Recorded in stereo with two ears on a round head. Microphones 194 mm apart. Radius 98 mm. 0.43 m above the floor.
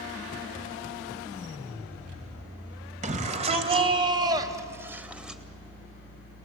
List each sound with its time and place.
3.0 s a shout: 35° right (ahead or behind), 3 m; by 5.4 s centre (ahead or behind), 2.5 m